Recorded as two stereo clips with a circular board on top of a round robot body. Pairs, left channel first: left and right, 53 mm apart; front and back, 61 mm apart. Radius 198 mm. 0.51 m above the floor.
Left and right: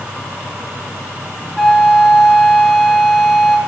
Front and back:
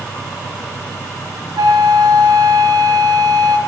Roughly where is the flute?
Behind.